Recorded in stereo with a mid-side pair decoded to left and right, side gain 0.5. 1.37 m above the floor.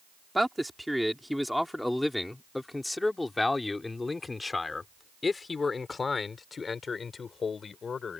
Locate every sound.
0.3 s a man speaking: 5° right; by 8.2 s 40° left